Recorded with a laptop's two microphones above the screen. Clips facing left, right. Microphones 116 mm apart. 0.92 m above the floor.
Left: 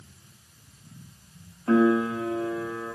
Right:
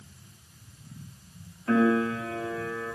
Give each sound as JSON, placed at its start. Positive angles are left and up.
{"t": 1.7, "sound": "a piano", "side_deg": 30, "distance_m": 1.5}